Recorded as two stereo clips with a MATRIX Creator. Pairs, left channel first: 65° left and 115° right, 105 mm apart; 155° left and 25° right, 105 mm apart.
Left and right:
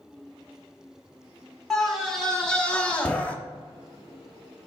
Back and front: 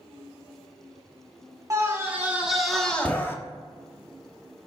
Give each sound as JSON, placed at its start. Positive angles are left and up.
{"t": 1.7, "sound": "a scream", "azimuth_deg": -20, "distance_m": 1.1}